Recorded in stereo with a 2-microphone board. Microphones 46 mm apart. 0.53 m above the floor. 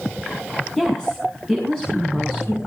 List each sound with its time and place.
0.8 s a woman speaking: 10° left (ahead or behind), 5.5 m